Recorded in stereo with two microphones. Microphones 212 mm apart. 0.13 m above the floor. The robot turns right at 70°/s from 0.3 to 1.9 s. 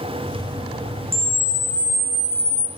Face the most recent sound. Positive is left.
turn(degrees=160)